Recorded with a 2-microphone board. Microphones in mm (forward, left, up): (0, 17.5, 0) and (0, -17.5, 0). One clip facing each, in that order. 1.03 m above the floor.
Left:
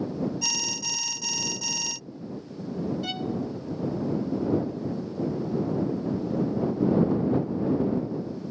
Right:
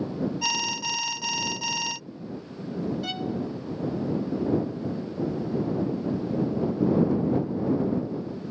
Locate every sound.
0.4 s an alarm: 20° right (ahead or behind)
3.0 s a violin: centre (ahead or behind)